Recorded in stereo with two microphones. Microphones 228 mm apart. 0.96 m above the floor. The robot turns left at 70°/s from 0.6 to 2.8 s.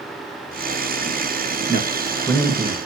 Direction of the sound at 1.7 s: 40° left (ahead or behind).